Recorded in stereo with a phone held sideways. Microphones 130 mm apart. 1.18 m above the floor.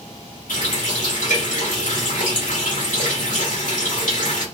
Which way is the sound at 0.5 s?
75° left (ahead or behind).